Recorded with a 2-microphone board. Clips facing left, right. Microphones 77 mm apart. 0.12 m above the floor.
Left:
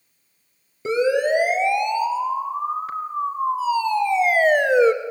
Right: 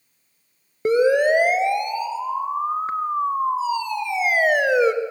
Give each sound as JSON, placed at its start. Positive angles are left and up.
{"t": 0.8, "sound": "a siren", "side_deg": -50, "distance_m": 2.0}